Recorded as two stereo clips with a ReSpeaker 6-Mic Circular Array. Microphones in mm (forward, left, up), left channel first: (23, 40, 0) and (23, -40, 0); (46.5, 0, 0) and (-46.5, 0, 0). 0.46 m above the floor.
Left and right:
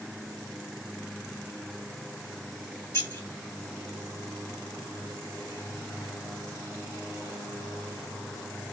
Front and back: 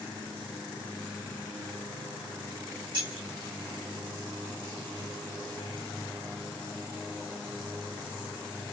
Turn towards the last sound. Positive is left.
turn(degrees=145)